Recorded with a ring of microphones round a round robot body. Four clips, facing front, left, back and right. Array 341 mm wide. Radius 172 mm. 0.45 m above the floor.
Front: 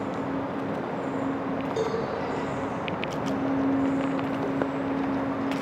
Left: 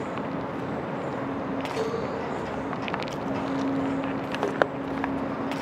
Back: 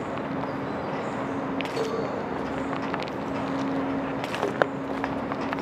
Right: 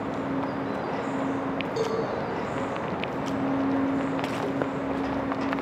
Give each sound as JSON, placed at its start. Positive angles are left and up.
{"t": 1.8, "sound": "a cowbell", "azimuth_deg": -30, "distance_m": 8.0}